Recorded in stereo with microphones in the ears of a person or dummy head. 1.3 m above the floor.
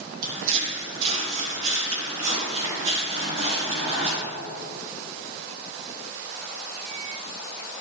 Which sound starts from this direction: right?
Footsteps, at 0.2 s.